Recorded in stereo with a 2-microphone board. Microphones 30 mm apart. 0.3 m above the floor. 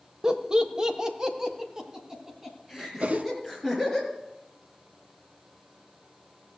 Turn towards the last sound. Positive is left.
turn(degrees=-60)  # may be behind; listen again after turning